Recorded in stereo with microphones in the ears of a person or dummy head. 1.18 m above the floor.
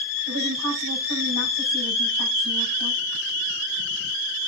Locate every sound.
0.3 s a woman speaking: 70° right (ahead or behind), 7 m